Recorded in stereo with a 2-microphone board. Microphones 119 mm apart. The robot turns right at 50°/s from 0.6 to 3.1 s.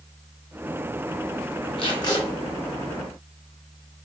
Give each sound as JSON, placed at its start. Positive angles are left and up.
{"t": 1.8, "sound": "tape being pulled", "side_deg": 50, "distance_m": 2.5}